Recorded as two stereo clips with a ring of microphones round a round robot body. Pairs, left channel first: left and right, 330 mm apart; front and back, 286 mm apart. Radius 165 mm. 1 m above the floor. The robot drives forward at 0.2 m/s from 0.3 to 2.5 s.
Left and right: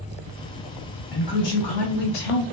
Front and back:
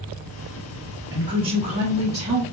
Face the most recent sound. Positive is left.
turn(degrees=115)